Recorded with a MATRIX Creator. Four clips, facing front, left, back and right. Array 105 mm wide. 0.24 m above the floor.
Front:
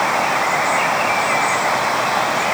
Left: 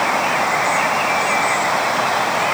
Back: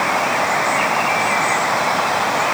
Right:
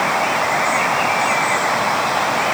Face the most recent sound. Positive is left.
No sound to turn to.